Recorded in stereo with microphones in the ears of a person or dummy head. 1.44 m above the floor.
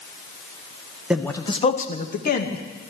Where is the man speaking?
5° right (ahead or behind), 0.7 m; by 2.6 s 55° left (ahead or behind), 2.0 m.